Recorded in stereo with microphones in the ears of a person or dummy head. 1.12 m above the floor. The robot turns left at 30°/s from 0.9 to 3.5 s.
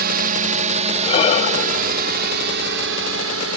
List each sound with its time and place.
0.0 s a drone: 55° right (ahead or behind); by 3.6 s 80° right
1.0 s breathing: 35° left (ahead or behind); by 3.5 s 60° left (ahead or behind)